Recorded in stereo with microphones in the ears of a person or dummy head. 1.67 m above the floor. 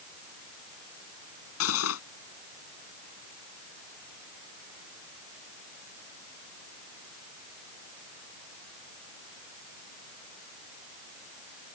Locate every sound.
1.6 s cutlery clinking: 80° left